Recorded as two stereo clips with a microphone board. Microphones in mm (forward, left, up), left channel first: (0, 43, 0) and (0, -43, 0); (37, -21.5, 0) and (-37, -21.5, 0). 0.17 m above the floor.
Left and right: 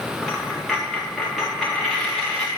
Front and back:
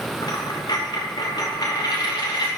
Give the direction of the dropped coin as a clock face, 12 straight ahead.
12 o'clock.